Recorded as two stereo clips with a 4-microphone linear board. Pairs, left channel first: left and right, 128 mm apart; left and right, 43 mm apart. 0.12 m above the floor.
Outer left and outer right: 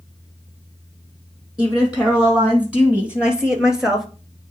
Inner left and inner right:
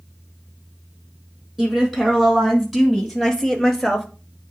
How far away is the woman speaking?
About 4 m.